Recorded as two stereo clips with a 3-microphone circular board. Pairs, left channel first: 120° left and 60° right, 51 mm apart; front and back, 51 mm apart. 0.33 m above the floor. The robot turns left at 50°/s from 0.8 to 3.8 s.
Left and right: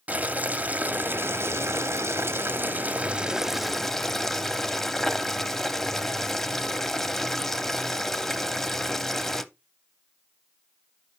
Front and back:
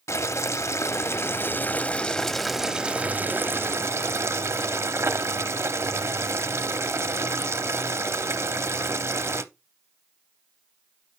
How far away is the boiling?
About 0.6 m.